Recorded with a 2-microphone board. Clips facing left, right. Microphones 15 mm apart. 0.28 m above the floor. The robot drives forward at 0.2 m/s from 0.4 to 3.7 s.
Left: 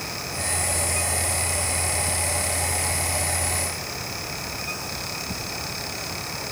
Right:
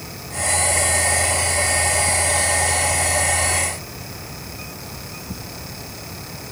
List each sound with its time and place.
Only background noise.